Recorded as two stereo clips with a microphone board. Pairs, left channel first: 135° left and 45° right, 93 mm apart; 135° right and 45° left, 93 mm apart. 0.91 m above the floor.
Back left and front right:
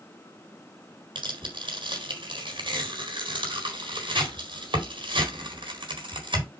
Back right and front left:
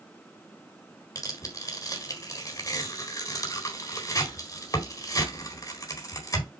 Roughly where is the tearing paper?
Right.